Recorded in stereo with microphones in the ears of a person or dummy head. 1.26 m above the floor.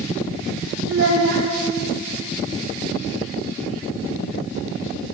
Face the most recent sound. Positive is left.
turn(degrees=-70)  # may be behind; listen again after turning